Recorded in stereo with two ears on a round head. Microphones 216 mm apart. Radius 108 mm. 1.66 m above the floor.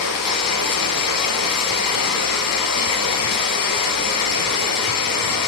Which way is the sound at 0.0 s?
65° left (ahead or behind).